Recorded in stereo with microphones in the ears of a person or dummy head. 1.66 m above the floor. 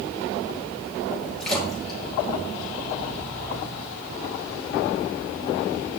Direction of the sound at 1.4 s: 5° left (ahead or behind).